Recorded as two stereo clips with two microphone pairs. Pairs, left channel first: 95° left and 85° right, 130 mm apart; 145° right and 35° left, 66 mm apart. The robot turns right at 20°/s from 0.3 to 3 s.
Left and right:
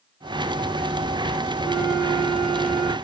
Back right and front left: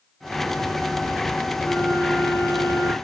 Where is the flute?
160° left, 3.5 m; by 2.9 s 175° right, 3.5 m.